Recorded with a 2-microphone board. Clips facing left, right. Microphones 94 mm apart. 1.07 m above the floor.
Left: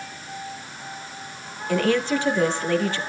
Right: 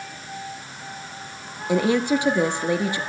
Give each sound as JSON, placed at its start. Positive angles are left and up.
{"t": 1.7, "sound": "a woman speaking", "side_deg": -15, "distance_m": 1.4}